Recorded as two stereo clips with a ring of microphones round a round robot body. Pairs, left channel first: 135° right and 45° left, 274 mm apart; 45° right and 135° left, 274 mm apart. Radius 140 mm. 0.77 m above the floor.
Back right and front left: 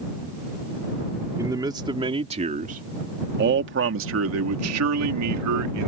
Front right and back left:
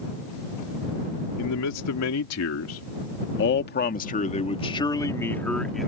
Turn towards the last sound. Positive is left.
turn(degrees=45)